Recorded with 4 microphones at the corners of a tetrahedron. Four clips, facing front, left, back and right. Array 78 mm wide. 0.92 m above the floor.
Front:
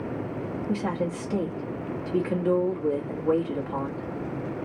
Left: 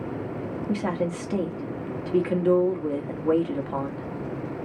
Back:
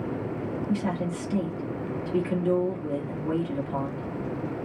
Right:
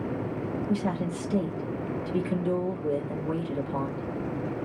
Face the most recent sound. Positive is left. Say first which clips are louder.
# left 4 dB, front 2 dB
turn(degrees=70)